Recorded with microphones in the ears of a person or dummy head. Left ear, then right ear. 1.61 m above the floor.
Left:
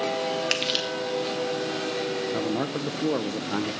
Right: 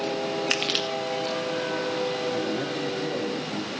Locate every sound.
0.5 s crushing: 20° right (ahead or behind), 1.1 m
2.3 s a man speaking: 40° left (ahead or behind), 0.7 m